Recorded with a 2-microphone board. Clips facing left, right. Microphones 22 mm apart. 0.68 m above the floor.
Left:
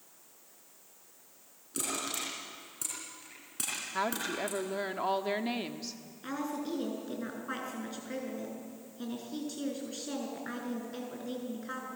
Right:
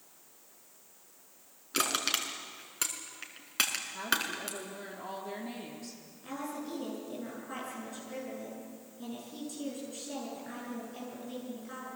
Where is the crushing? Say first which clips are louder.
Right 5 dB; 60° right (ahead or behind), 3.5 m.